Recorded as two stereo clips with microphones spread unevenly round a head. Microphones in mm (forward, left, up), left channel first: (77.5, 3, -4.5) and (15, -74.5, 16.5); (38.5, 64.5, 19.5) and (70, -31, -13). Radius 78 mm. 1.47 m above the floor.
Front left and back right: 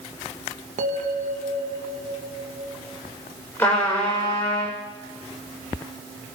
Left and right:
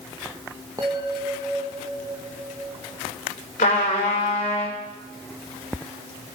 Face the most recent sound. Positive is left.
turn(degrees=130)